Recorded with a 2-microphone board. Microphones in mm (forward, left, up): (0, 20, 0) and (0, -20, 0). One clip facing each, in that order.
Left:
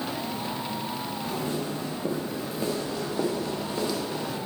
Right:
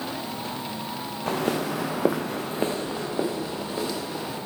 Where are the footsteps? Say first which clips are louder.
Right 7 dB; 55° right (ahead or behind), 1.0 m; by 4.4 s 5° right (ahead or behind), 2.5 m.